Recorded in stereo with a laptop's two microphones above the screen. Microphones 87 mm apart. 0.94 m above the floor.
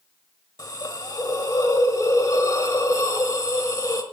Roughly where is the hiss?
Left.